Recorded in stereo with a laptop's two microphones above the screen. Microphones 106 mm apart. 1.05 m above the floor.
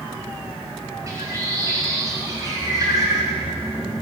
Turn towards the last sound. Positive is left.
turn(degrees=-30)  # may be behind; listen again after turning